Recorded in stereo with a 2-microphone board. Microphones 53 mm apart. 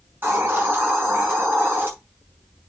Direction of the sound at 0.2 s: 40° right (ahead or behind).